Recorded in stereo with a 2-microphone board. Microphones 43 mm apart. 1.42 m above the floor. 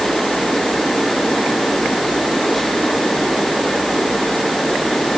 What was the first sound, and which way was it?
Only background noise.